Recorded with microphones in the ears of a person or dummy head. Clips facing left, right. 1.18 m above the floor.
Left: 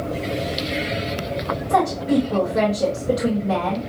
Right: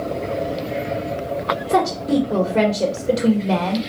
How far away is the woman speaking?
About 1.0 m.